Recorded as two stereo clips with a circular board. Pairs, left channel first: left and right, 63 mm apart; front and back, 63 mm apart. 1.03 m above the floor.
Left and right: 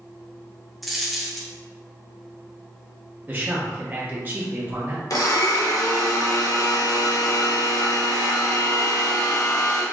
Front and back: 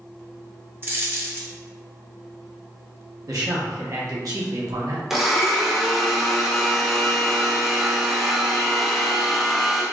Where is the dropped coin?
Straight behind, 0.7 m.